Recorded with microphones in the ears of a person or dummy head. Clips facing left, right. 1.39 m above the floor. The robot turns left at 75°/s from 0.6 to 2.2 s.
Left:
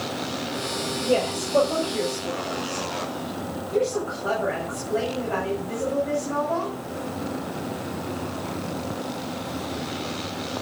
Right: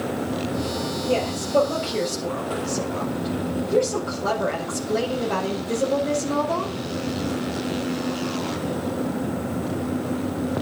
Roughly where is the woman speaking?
Ahead left.